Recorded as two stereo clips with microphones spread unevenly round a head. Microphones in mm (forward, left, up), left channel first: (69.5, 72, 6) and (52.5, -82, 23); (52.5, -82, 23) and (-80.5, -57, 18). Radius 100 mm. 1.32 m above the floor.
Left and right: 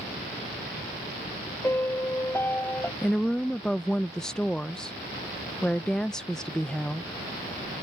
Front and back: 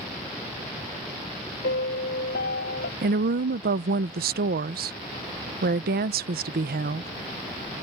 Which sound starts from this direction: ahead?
A piano, at 1.6 s.